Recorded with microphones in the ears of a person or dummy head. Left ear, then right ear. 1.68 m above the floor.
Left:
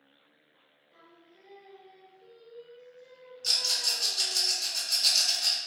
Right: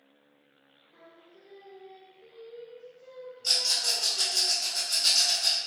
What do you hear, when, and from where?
0.9 s singing: 40° left (ahead or behind), 1.3 m
3.4 s a rattle: 35° left (ahead or behind), 1.5 m